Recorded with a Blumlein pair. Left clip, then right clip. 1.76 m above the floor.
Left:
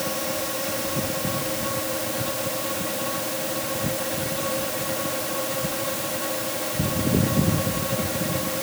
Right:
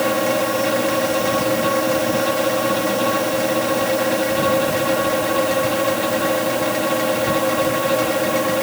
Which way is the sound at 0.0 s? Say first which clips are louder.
Right 10 dB; 60° right.